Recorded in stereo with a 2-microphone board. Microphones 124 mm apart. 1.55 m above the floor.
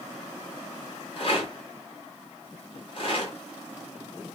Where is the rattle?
45° left (ahead or behind), 2.0 m.